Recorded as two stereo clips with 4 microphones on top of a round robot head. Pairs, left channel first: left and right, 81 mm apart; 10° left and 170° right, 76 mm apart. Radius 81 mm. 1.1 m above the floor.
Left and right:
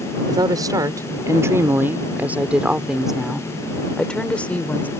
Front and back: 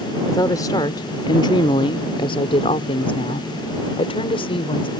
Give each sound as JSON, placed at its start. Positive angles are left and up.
{"t": 0.3, "sound": "a woman speaking", "azimuth_deg": -45}